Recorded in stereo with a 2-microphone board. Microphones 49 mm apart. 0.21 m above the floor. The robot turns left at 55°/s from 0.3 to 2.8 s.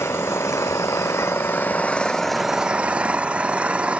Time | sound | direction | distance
0.0 | an engine running | 115° left | ?